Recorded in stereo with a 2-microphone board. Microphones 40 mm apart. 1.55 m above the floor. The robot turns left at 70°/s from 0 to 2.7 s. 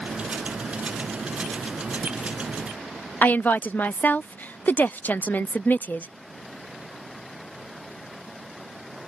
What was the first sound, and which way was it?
A woman speaking, 50° left (ahead or behind).